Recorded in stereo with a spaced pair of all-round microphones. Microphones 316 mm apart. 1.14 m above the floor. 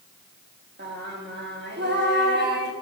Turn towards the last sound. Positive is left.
turn(degrees=-35)  # may be behind; listen again after turning